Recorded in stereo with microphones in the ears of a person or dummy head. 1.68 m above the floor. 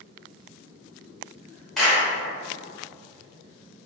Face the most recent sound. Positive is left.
turn(degrees=5)  # may be behind; listen again after turning